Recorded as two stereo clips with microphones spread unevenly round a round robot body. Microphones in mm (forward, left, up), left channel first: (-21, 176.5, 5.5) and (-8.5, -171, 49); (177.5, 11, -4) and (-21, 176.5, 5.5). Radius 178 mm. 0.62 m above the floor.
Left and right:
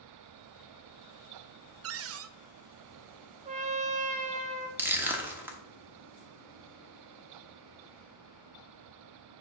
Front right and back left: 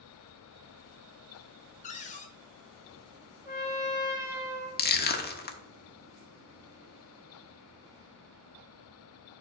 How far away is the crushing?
About 1.1 m.